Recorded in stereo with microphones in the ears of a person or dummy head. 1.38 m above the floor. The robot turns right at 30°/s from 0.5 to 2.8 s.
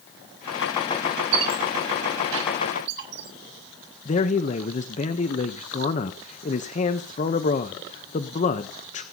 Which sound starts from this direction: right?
A squeak, at 1.3 s.